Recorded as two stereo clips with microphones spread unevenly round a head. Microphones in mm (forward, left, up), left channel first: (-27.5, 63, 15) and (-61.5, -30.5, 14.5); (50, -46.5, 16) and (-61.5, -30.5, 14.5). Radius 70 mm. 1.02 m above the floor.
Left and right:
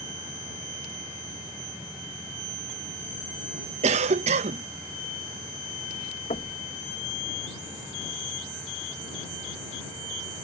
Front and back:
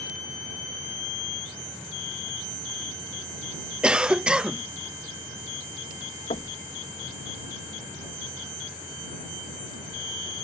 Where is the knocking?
35° left.